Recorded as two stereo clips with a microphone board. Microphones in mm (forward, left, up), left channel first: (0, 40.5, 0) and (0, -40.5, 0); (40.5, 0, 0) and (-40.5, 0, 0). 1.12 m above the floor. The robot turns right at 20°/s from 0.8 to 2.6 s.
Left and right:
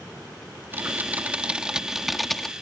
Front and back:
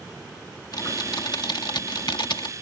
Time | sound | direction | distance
0.7 | typing on a keyboard | 30° right | ?